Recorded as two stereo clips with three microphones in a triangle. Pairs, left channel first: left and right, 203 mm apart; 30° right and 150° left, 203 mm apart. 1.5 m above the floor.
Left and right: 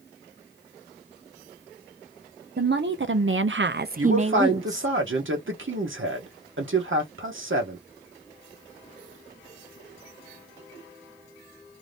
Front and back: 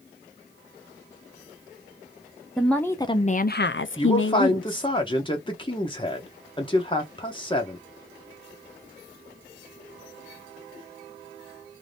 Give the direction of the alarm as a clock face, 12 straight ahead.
No alarm in this recording.